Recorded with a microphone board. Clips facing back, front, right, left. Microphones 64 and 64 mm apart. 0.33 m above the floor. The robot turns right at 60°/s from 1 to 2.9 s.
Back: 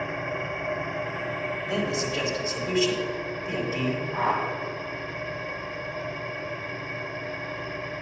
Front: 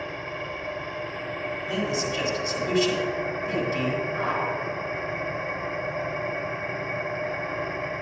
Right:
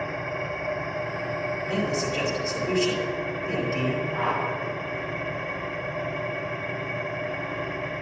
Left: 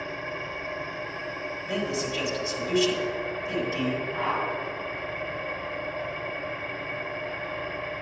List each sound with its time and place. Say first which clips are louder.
0.0 s an engine running: back 3 dB, right 4 dB; 135° right, 0.8 m; by 8.0 s 20° right, 0.8 m
1.6 s a man speaking: front 1 dB, right 1 dB; 160° left, 2 m; by 4.0 s 125° right, 2 m
4.1 s a whoosh: back 1 dB, right 2 dB; 170° right, 2.0 m